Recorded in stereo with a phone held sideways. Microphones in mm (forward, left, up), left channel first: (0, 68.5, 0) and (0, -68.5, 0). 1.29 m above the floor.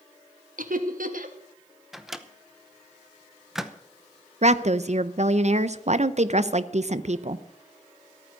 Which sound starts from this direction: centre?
A microwave, at 1.9 s.